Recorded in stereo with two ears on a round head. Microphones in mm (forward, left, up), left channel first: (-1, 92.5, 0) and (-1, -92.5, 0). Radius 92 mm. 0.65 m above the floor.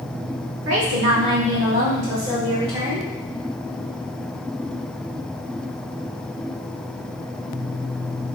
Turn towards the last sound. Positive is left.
turn(degrees=-25)  # may be behind; listen again after turning